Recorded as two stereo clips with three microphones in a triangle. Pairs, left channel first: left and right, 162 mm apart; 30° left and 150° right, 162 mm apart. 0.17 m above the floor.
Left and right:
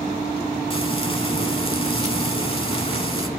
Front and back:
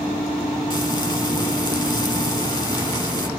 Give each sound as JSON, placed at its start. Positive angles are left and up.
{"t": 0.7, "sound": "frying", "azimuth_deg": 70, "distance_m": 0.6}